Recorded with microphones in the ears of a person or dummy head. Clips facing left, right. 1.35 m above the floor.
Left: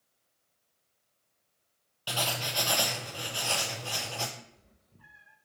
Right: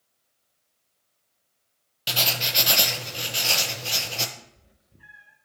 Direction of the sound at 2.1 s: 25° right (ahead or behind).